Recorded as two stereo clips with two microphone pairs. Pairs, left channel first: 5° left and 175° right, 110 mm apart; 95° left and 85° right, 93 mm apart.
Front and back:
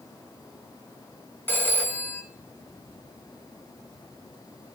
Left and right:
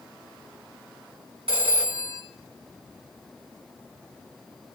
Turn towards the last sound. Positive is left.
turn(degrees=-70)